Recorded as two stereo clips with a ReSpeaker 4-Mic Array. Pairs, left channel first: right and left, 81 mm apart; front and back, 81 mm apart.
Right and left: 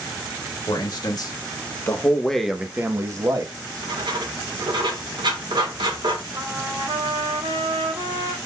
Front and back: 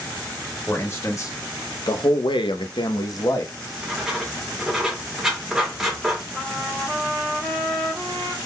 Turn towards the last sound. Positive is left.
turn(degrees=90)